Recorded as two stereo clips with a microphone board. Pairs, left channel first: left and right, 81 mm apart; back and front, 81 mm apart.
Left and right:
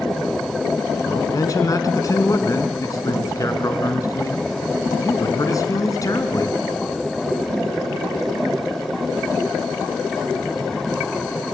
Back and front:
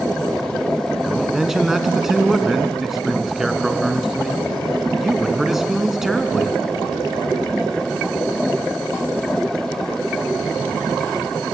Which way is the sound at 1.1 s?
85° left.